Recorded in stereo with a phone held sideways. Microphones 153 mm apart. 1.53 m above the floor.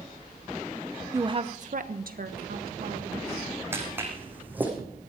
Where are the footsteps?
15° right (ahead or behind), 4.5 m; by 4.7 s 10° right (ahead or behind), 5 m.